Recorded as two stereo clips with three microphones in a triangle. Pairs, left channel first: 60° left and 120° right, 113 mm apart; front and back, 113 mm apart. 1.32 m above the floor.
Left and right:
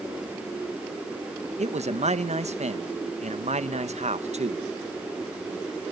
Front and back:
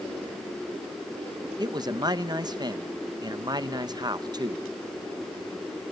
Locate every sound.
1.6 s a man speaking: 130° right, 1.1 m